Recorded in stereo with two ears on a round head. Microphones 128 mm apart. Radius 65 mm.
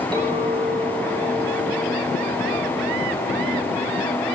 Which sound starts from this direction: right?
A clink, at 0.1 s.